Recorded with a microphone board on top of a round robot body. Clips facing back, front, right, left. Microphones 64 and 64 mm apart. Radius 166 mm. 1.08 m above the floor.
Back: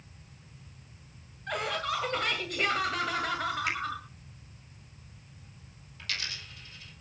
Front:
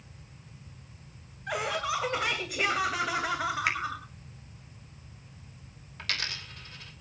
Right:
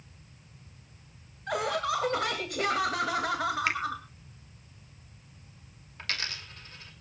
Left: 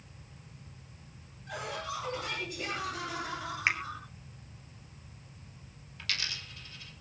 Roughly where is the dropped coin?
Ahead right.